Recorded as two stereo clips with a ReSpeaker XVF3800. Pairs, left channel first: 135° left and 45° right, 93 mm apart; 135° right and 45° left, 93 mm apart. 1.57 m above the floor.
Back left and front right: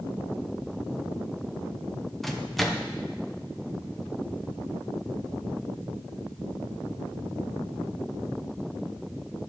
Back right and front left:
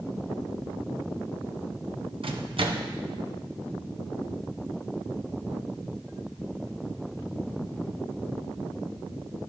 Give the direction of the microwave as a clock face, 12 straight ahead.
10 o'clock.